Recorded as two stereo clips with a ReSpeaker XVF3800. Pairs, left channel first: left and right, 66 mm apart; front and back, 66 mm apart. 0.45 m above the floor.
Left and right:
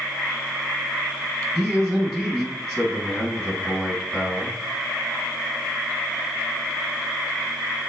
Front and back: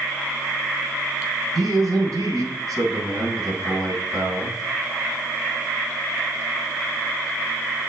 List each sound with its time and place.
1.6 s a man speaking: 170° left, 3.5 m